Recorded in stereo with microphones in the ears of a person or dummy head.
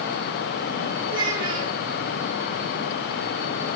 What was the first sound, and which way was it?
A child speaking, 45° right (ahead or behind).